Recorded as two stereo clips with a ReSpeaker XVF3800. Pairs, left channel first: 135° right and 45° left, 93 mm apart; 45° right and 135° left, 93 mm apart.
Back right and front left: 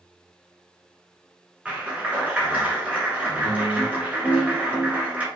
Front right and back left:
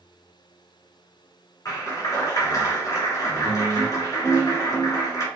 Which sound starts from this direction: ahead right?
A clap, at 1.6 s.